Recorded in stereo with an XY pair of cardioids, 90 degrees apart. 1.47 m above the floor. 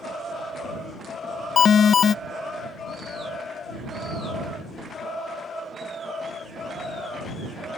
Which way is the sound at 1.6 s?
50° left.